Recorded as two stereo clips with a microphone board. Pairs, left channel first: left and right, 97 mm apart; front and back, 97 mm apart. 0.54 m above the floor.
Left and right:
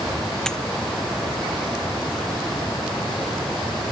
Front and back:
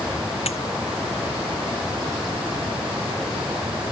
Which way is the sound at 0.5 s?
5° left.